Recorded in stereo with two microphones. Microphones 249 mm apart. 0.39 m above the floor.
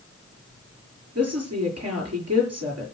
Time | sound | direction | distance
1.1 | a woman speaking | 70° right (ahead or behind) | 6.5 m